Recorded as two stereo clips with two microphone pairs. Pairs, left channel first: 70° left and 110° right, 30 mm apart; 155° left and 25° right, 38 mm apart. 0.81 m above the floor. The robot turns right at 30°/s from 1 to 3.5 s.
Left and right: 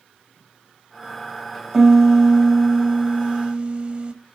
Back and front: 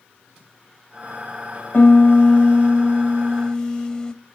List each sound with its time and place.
1.7 s a piano: 160° left, 0.8 m; by 4.1 s 145° right, 0.8 m